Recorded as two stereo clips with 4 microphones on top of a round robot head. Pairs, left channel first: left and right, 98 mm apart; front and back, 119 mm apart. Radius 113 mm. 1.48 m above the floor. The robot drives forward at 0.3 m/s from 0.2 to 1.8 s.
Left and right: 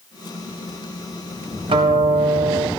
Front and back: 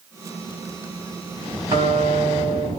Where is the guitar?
110° right, 0.6 m; by 2.7 s 115° right, 0.6 m.